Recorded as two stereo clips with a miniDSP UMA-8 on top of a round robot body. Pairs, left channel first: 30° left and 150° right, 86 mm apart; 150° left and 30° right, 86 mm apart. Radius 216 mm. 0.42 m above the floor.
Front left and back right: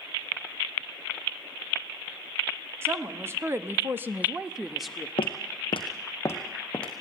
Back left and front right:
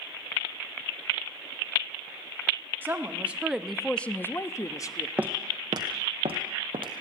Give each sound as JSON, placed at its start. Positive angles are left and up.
{"t": 2.8, "sound": "a woman speaking", "azimuth_deg": -95, "distance_m": 2.0}
{"t": 5.2, "sound": "footsteps", "azimuth_deg": 50, "distance_m": 0.9}